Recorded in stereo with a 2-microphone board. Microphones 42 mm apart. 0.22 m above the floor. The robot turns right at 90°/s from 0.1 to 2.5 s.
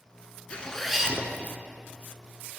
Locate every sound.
0.5 s a zipper: 145° left, 0.7 m; by 1.6 s 120° right, 0.7 m